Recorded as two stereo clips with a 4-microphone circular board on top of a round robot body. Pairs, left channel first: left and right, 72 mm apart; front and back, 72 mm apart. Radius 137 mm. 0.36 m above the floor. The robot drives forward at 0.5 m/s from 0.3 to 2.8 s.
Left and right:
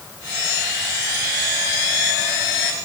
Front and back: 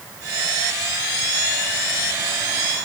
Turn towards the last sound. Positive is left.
No sound to turn to.